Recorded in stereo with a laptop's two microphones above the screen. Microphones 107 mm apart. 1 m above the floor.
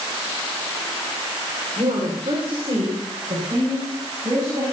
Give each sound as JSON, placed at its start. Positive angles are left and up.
{"t": 1.8, "sound": "a woman speaking", "side_deg": -55, "distance_m": 3.0}